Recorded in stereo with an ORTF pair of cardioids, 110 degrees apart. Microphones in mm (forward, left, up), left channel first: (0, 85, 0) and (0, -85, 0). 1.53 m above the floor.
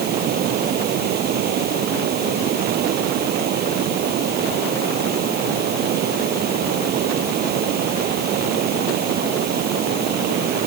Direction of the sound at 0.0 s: 65° right.